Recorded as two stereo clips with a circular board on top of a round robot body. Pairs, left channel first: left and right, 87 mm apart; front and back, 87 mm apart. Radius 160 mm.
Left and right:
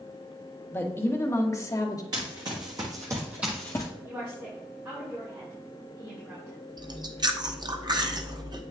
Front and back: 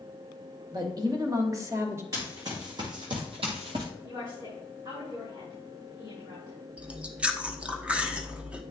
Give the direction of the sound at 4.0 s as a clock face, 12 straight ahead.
5 o'clock.